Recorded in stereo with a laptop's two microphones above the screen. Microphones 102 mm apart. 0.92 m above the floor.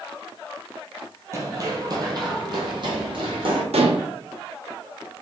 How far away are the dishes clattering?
About 0.6 m.